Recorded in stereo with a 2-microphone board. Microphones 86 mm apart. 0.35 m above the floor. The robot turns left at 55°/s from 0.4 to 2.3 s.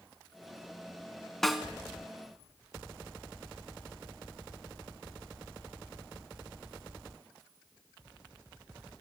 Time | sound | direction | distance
1.4 | a snare drum | 5° left (ahead or behind) | 0.9 m